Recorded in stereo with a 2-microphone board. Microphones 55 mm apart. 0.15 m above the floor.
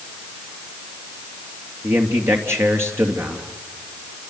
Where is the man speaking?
50° right (ahead or behind), 3 m.